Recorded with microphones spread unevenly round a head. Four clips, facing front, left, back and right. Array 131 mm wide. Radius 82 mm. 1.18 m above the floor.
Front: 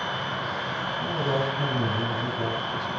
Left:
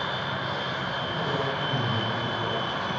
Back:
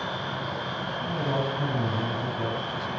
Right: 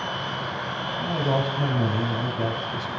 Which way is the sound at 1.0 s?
80° right.